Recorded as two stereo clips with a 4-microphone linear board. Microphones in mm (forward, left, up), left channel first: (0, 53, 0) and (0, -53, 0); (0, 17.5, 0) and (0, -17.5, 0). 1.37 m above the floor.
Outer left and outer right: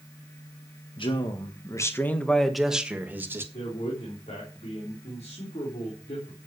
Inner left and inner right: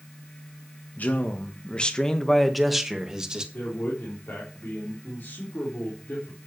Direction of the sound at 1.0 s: 55° left (ahead or behind).